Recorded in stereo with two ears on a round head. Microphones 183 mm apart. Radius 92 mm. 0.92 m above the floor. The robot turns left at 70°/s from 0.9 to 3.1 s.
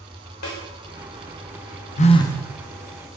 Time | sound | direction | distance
0.4 | a snare drum | 85° left | 3 m
2.0 | a phone buzzing | 35° left | 0.7 m